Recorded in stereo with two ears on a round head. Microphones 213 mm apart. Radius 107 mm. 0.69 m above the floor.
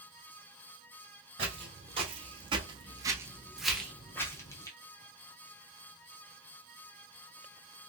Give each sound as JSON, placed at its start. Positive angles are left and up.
{"t": 1.4, "sound": "footsteps", "side_deg": -25, "distance_m": 1.4}
{"t": 3.7, "sound": "whispering", "side_deg": -5, "distance_m": 1.4}